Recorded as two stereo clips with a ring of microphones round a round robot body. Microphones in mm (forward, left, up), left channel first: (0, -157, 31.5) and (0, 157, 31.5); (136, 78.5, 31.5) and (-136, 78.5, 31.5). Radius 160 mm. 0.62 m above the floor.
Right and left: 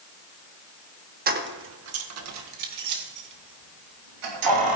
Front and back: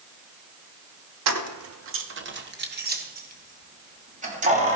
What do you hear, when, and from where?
1.3 s keys jangling: 155° left, 1.1 m; by 4.8 s 115° left, 3.5 m